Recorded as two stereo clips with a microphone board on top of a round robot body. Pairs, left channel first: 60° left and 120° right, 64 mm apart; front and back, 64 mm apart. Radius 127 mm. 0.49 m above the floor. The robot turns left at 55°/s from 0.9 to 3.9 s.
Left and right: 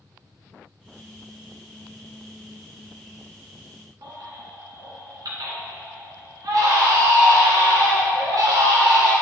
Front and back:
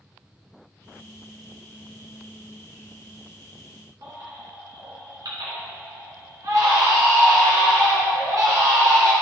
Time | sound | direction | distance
4.0 | a baby crying | 150° right | 2.5 m